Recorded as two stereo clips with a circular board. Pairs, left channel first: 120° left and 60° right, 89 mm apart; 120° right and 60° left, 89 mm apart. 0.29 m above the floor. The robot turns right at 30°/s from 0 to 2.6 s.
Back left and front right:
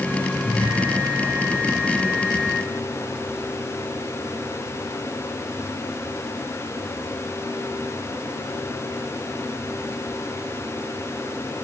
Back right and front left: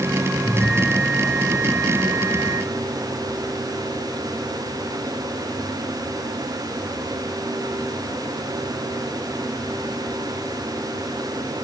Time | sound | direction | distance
0.4 | a bell | 30° right | 3 m